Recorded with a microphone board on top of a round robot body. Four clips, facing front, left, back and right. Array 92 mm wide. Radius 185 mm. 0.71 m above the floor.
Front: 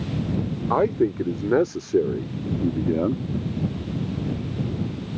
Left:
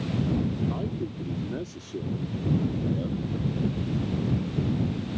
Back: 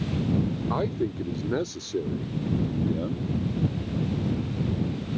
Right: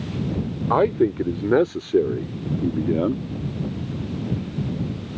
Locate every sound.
0.7 s a man speaking: 60° right; by 3.2 s 55° right